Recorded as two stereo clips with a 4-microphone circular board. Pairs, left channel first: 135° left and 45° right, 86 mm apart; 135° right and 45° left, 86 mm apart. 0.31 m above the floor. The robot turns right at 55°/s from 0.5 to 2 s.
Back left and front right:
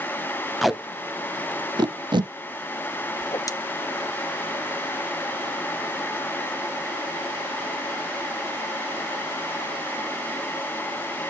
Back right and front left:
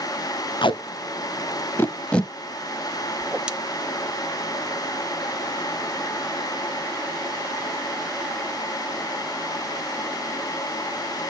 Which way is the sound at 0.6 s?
135° right.